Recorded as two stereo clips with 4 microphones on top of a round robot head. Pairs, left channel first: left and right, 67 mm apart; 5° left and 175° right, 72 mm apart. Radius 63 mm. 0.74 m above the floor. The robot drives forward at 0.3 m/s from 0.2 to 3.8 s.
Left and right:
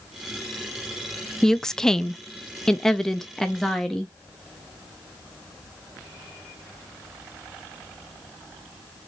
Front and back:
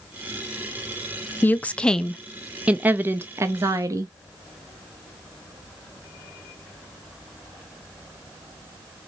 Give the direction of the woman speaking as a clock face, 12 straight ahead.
11 o'clock.